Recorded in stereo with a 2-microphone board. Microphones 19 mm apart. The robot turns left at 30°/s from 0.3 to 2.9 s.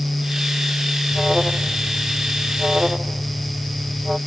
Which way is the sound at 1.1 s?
20° right.